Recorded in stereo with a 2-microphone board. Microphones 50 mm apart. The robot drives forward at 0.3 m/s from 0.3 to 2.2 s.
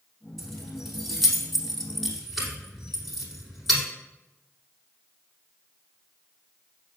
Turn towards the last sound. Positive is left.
turn(degrees=0)  # may be behind; listen again after turning